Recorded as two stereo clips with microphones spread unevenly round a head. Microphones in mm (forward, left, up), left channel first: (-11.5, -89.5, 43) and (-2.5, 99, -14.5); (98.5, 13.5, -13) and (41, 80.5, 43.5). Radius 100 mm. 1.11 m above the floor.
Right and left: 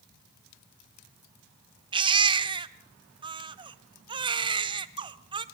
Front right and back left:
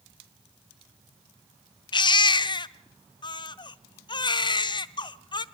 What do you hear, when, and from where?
1.9 s a baby crying: 10° left, 0.8 m